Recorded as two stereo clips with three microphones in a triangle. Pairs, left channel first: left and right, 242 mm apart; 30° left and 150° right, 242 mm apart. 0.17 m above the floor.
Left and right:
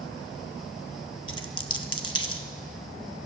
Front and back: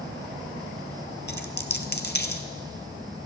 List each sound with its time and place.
1.3 s a dropped coin: 70° left, 1.0 m